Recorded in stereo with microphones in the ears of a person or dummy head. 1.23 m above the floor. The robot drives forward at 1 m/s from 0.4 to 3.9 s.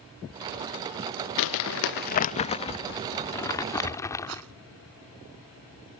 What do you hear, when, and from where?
1.4 s crumpling: 70° left (ahead or behind); by 4.4 s 15° left (ahead or behind)
4.3 s a rattle: 80° right